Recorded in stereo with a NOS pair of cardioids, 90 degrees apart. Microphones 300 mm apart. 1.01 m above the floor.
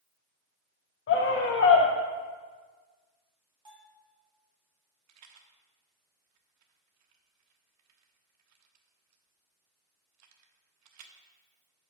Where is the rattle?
65° right, 1.2 m.